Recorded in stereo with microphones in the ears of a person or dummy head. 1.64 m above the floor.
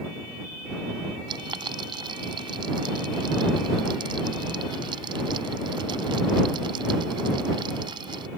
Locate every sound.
1.3 s boiling: 30° right (ahead or behind)